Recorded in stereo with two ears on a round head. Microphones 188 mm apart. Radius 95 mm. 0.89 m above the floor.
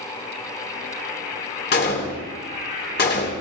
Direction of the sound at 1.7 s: 50° left (ahead or behind).